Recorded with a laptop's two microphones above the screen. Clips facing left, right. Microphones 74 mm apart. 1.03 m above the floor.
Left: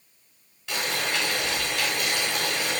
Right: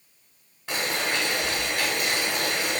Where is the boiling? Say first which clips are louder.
Right 1 dB; 40° right (ahead or behind), 1.3 m.